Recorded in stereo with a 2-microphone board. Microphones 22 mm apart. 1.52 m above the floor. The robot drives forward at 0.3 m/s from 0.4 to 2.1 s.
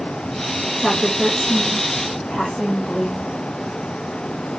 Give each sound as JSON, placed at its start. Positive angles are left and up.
{"t": 0.8, "sound": "a woman speaking", "side_deg": 0, "distance_m": 1.8}